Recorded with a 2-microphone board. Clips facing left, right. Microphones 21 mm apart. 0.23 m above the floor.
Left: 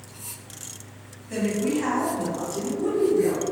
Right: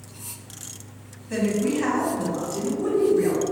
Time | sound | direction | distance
1.3 | a woman speaking | 5° right (ahead or behind) | 1.8 m